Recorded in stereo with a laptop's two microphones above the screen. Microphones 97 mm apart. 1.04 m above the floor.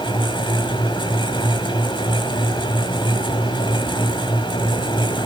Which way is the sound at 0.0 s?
55° left (ahead or behind).